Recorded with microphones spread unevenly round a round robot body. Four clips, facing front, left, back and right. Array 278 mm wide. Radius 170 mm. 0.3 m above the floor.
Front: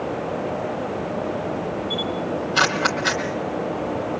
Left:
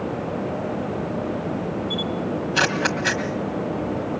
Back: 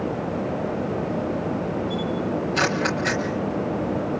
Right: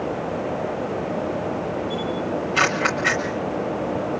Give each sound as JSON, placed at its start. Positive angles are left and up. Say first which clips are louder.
{"t": 1.9, "sound": "a camera shutter", "louder": "right 1 dB, even", "azimuth_deg": 130, "distance_m": 0.7}